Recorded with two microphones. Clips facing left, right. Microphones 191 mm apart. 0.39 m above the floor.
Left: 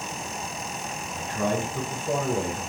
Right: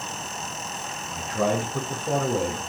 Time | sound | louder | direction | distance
1.1 | a man speaking | right 3 dB | 70° right (ahead or behind) | 4 m